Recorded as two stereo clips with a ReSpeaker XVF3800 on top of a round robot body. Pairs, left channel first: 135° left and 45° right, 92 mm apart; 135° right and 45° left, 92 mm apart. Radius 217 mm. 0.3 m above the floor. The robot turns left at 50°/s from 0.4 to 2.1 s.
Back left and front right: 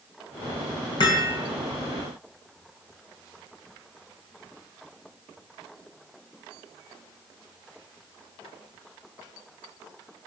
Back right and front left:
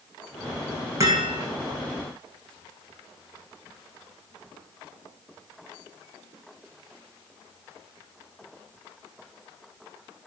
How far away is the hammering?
About 5.5 m.